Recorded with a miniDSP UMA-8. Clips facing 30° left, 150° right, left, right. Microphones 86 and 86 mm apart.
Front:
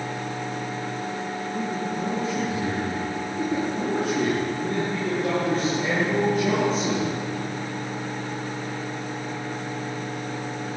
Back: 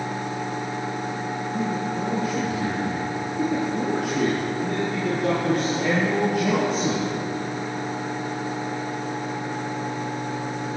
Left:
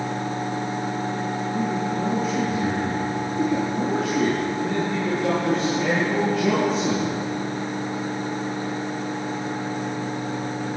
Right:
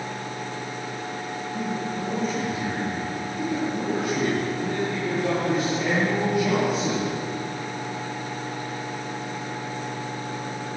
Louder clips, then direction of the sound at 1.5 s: Back 2 dB, left 3 dB; 175° left.